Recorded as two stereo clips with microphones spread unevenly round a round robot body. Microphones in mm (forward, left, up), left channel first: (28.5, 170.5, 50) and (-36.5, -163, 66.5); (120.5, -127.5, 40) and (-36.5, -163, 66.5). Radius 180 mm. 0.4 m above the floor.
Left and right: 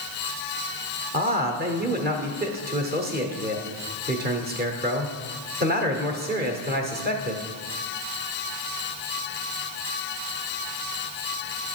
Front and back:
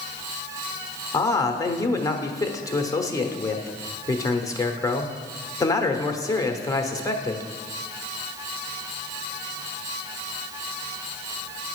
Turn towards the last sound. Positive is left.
turn(degrees=-45)